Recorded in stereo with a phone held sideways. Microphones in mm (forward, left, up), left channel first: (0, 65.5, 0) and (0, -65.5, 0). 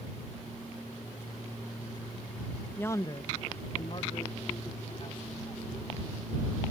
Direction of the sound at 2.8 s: 15° left (ahead or behind).